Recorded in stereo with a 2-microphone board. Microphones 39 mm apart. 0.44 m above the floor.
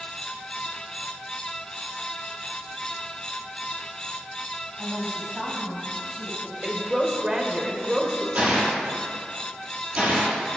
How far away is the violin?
I don't hear a violin.